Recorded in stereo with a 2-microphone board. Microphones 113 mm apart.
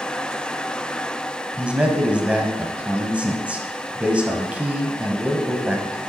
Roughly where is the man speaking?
Centre.